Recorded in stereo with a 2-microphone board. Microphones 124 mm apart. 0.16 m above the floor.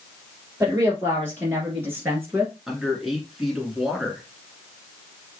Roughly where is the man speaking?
Centre.